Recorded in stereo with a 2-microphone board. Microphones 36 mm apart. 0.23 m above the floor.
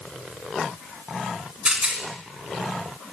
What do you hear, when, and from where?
1.6 s a rattle: 20° right (ahead or behind), 2 m